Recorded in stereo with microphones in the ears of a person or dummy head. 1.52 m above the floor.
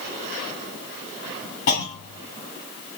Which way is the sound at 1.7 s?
45° left (ahead or behind).